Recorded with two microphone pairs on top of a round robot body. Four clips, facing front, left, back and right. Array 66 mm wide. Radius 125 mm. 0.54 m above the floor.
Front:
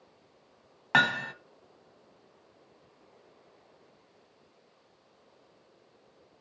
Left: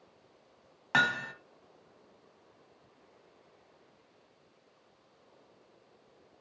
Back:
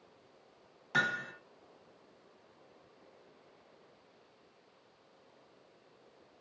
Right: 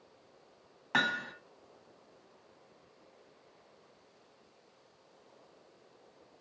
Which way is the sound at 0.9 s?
10° left.